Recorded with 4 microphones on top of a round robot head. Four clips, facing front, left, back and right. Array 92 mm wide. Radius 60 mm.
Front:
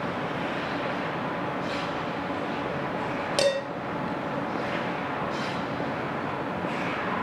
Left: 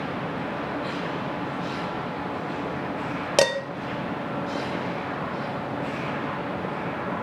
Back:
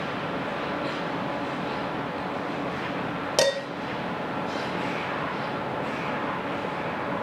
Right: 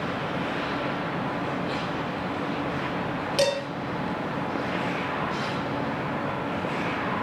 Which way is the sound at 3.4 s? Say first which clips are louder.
Left 3 dB, back 1 dB; 95° left.